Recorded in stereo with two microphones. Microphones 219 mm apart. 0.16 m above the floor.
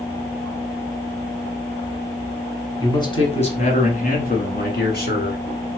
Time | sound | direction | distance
2.8 | a man speaking | 15° left (ahead or behind) | 1.2 m